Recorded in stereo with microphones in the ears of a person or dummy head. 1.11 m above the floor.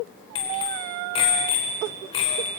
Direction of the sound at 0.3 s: 25° left (ahead or behind).